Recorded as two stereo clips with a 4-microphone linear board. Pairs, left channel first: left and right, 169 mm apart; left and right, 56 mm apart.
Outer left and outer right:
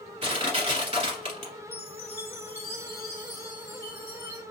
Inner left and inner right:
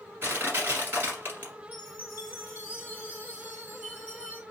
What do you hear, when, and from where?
0.2 s crushing: 40° right (ahead or behind), 1.3 m
1.7 s a chime: 30° right (ahead or behind), 1.9 m